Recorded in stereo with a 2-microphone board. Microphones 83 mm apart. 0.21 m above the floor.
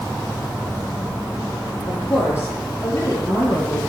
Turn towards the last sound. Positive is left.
turn(degrees=30)  # may be behind; listen again after turning